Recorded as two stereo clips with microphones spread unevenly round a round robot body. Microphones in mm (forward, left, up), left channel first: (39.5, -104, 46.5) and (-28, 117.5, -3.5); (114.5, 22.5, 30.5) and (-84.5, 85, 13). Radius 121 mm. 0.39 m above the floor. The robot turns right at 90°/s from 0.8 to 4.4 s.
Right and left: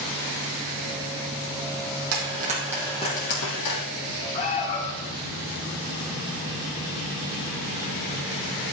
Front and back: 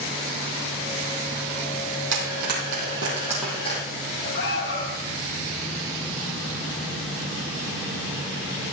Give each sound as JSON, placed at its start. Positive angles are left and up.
{"t": 2.1, "sound": "frying", "azimuth_deg": 135, "distance_m": 5.5}
{"t": 4.3, "sound": "an alarm", "azimuth_deg": -10, "distance_m": 4.5}